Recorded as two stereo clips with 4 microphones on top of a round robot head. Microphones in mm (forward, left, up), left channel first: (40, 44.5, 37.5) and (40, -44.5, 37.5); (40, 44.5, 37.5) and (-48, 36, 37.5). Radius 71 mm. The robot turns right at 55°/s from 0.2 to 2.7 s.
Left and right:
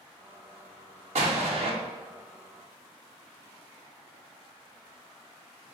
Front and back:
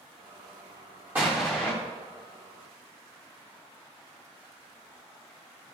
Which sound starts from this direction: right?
An explosion, at 1.1 s.